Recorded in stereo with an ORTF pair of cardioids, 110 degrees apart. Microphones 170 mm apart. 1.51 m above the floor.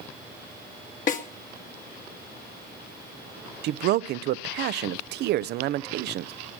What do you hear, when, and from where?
1.1 s a snare drum: 50° left, 1.8 m
3.6 s a man speaking: 70° right, 0.7 m